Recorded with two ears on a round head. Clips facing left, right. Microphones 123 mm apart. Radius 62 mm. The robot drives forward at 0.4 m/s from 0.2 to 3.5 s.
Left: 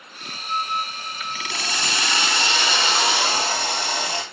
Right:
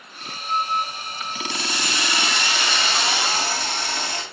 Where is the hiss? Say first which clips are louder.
Left 1 dB; 30° left (ahead or behind), 2 m; by 4.2 s 20° left (ahead or behind), 3 m.